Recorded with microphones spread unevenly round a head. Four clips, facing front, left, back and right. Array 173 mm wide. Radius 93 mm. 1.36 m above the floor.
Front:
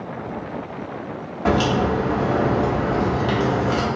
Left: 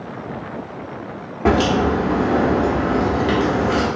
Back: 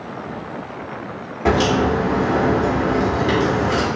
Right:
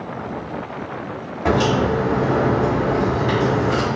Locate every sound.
1.4 s a crack: 100° left, 1.0 m